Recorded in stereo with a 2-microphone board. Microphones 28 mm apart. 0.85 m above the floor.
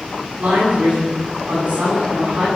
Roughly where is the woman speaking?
Right.